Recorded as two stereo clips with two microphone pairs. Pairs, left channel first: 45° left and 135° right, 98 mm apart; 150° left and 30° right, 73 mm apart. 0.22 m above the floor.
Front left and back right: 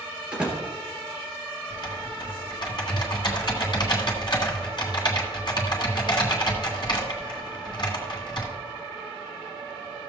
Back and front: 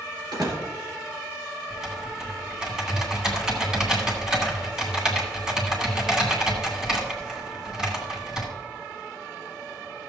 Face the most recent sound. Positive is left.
turn(degrees=45)